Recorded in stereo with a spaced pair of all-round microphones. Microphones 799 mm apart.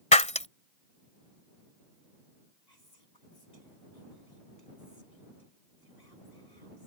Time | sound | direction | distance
0.1 | breaking glass | 10° left (ahead or behind) | ?
2.7 | whispering | 55° left (ahead or behind) | ?